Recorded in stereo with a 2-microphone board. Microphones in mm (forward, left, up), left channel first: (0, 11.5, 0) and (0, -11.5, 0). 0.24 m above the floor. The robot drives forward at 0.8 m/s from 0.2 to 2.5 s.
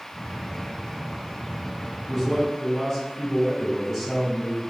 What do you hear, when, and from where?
2.1 s a man speaking: 5° left (ahead or behind), 1.7 m